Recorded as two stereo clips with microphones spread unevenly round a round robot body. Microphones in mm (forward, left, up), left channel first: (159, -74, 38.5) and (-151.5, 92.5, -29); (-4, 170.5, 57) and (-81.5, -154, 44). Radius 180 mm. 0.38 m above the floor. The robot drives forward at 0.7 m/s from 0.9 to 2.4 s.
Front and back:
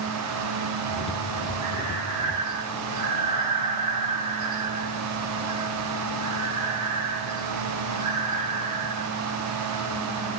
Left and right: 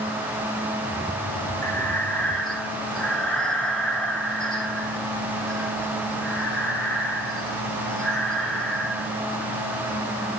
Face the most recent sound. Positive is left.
turn(degrees=165)